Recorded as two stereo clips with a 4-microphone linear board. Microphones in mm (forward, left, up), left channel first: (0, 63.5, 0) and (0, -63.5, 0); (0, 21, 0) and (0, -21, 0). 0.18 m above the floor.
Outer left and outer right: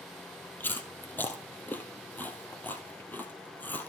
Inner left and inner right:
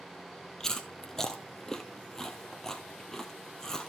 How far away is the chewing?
About 1.5 m.